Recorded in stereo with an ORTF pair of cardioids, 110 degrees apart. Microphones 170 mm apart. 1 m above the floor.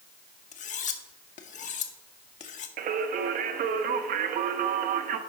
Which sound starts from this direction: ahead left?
Cutlery clinking, at 0.5 s.